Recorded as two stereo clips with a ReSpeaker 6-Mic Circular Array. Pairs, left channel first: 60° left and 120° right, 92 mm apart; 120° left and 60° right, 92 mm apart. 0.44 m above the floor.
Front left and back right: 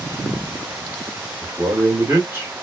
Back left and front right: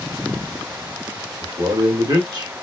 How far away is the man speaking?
About 1.4 m.